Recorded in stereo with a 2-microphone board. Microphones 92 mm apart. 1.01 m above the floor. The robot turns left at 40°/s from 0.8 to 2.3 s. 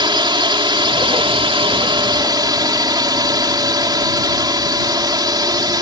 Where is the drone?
65° right; by 5.8 s 125° right.